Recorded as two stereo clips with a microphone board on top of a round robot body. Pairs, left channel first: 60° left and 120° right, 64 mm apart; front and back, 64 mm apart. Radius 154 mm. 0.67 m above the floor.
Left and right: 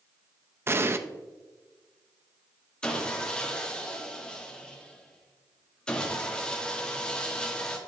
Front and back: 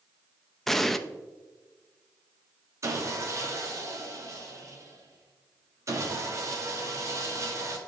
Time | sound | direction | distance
0.7 | an explosion | 85° right | 0.7 m
2.8 | sawing | 135° left | 1.4 m